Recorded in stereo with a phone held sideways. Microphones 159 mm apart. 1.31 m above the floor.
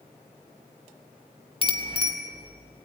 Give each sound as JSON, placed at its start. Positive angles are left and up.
{"t": 1.6, "sound": "a bicycle bell", "side_deg": 35, "distance_m": 3.0}